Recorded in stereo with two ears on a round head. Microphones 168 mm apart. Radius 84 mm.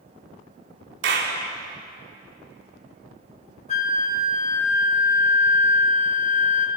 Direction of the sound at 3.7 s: 40° left (ahead or behind).